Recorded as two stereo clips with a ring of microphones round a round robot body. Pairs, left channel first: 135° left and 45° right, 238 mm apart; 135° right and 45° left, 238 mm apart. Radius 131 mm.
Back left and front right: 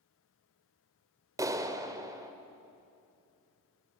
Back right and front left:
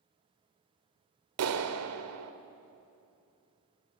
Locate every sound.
1.4 s a clap: 30° left, 1.5 m